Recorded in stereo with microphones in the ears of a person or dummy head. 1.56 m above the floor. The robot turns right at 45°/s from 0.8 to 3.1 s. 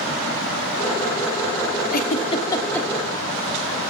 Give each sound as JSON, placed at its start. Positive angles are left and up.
{"t": 1.9, "sound": "a giggle", "side_deg": 45, "distance_m": 1.1}